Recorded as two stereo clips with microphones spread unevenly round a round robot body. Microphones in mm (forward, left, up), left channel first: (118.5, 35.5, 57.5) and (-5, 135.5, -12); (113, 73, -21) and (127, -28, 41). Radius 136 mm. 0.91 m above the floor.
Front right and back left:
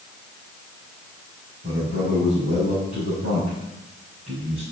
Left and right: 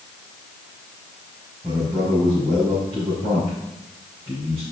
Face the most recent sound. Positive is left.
turn(degrees=-175)